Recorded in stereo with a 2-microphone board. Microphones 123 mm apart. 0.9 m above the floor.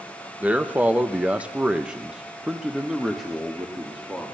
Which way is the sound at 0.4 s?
10° right (ahead or behind).